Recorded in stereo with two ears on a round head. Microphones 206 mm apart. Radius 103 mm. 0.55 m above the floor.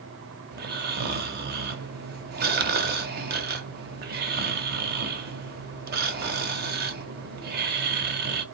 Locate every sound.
0.5 s snoring: 45° right (ahead or behind), 0.6 m